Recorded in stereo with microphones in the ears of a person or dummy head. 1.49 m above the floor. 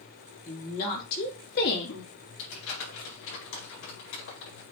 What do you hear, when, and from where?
0.5 s a woman speaking: 50° left (ahead or behind), 4 m; by 2.1 s 75° left (ahead or behind), 2.5 m
2.4 s crumpling: 80° left, 5 m